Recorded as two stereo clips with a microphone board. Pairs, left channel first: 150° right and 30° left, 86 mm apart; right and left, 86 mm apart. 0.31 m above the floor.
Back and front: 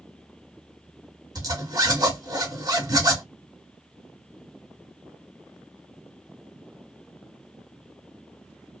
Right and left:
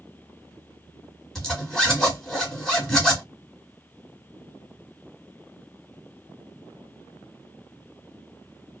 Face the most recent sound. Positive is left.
turn(degrees=-5)